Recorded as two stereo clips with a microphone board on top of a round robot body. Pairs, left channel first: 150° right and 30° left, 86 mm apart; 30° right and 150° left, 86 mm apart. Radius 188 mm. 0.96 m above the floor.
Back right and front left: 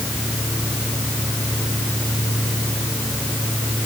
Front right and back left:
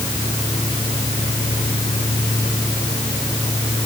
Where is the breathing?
No breathing in this recording.